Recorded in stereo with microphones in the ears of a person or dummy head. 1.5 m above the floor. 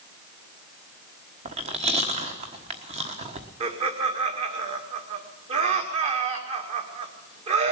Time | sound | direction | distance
1.4 | chewing | 40° right (ahead or behind) | 1.4 m
3.6 | laughter | 40° right (ahead or behind) | 2 m